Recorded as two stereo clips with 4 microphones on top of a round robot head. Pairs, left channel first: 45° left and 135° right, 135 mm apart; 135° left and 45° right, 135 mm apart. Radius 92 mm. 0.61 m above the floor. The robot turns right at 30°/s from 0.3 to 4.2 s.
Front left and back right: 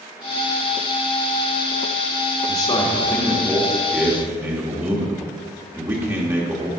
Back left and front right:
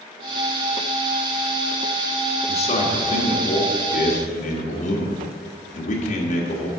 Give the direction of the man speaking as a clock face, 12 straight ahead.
9 o'clock.